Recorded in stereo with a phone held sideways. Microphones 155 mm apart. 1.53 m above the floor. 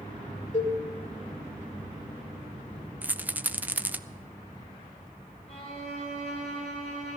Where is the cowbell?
50° left (ahead or behind), 2.5 m.